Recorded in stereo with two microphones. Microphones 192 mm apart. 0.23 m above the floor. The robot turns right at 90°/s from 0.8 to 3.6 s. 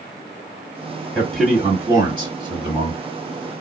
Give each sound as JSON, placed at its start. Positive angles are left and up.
{"t": 1.1, "sound": "a man speaking", "side_deg": 10, "distance_m": 1.6}